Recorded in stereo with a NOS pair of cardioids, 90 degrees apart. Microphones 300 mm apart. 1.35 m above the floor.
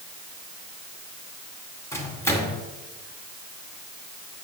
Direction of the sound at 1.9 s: 10° left.